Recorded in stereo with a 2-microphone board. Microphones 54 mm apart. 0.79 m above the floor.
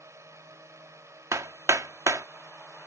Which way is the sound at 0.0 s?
65° right (ahead or behind).